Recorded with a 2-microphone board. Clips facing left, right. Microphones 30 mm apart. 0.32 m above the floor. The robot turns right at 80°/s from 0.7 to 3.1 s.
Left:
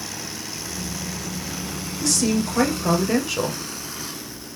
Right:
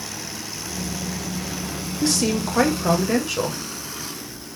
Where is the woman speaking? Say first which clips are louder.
Even; 25° right (ahead or behind), 0.9 m; by 3.6 s centre (ahead or behind), 0.9 m.